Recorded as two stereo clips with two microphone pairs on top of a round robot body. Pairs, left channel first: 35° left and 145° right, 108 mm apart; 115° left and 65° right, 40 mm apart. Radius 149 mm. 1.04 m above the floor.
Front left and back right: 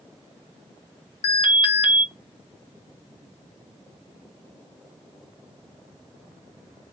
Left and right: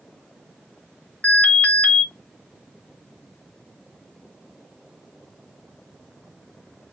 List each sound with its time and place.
1.2 s an alarm: 65° left, 1.2 m